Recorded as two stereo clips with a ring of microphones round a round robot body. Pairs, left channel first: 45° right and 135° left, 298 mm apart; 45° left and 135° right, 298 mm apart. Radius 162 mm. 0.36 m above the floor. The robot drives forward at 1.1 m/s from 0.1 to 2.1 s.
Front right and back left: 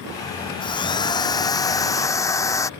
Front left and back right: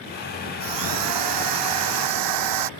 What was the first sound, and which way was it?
A drill, 120° right.